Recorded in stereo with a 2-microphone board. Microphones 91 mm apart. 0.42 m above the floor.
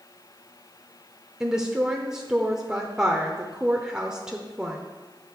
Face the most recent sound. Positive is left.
turn(degrees=-10)  # may be behind; listen again after turning